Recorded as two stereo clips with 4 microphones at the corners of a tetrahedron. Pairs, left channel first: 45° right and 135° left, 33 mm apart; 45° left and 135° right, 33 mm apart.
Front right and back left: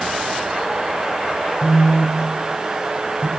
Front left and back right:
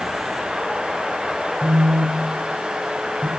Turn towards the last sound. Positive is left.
turn(degrees=-155)